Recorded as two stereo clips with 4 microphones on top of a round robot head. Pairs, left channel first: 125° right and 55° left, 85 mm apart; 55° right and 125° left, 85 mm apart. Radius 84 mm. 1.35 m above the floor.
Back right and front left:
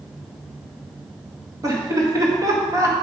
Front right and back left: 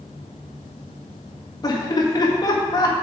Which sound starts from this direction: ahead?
Laughter, at 1.6 s.